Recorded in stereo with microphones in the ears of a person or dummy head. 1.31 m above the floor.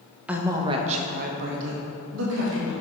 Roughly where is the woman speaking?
Centre.